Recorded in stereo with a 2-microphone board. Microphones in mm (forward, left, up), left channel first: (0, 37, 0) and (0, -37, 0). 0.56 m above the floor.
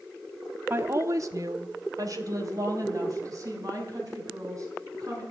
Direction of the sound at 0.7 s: 30° right (ahead or behind).